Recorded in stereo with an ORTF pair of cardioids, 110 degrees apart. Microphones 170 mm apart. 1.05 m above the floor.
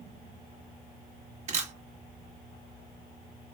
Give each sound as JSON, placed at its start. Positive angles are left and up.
{"t": 1.5, "sound": "a camera shutter", "azimuth_deg": -40, "distance_m": 1.6}